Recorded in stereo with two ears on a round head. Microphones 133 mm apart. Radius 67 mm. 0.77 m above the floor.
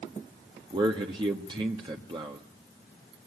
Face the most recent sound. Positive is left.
turn(degrees=-30)  # may be behind; listen again after turning